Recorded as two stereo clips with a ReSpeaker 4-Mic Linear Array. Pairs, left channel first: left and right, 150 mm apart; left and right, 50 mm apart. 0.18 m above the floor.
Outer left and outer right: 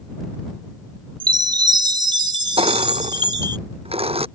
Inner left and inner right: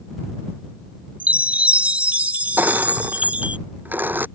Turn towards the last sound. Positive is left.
turn(degrees=-40)  # may be behind; listen again after turning